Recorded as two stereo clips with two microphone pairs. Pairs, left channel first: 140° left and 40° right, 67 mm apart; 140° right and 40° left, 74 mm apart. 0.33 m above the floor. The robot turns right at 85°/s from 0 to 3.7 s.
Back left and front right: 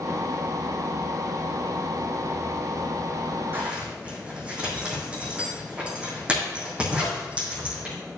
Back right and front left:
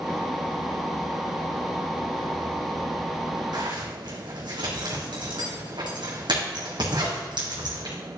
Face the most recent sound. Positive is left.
turn(degrees=35)